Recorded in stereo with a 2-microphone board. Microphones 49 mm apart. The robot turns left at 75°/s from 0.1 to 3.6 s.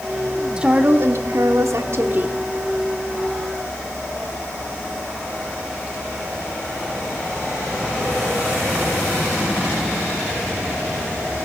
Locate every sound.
0.6 s a woman speaking: 15° right, 1.4 m; by 2.4 s 150° right, 1.4 m